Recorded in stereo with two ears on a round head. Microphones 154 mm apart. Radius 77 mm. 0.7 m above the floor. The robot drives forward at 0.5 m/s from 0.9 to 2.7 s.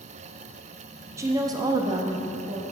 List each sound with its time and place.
1.2 s a woman speaking: 20° right (ahead or behind), 0.6 m